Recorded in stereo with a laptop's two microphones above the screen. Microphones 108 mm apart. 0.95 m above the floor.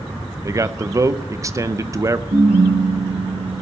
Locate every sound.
0.4 s a man speaking: 30° right (ahead or behind), 0.6 m
2.3 s a ringtone: 65° right (ahead or behind), 9.5 m